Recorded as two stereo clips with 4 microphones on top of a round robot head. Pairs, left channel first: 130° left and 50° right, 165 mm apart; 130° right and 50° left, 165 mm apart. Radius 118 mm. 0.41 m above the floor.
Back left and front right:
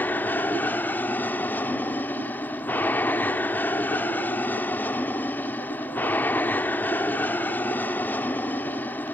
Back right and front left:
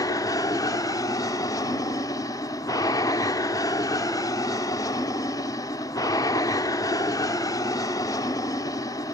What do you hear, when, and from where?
0.0 s an aircraft: 165° right